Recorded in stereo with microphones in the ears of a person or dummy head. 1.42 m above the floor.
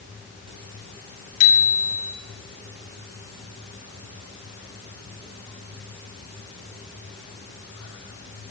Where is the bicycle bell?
45° left (ahead or behind), 5 m.